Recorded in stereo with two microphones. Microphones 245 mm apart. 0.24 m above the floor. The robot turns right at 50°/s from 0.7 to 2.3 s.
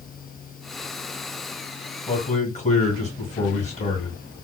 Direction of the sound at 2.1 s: 20° left (ahead or behind).